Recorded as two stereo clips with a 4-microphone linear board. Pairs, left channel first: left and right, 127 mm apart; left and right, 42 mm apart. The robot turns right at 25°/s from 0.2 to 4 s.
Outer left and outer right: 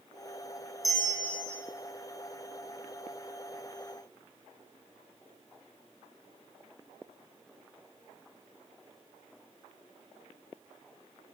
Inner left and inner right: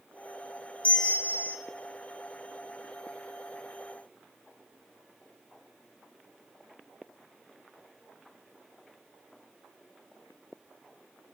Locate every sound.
0.8 s a bell: 25° left (ahead or behind), 2.5 m; by 1.6 s 45° left (ahead or behind), 2.5 m